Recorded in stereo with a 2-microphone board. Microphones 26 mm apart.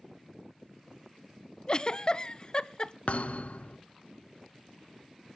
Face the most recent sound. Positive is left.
turn(degrees=55)  # may be behind; listen again after turning